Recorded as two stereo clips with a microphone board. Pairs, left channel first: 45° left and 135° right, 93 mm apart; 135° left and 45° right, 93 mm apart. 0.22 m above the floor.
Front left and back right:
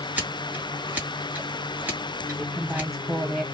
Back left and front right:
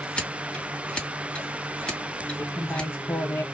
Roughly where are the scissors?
Behind.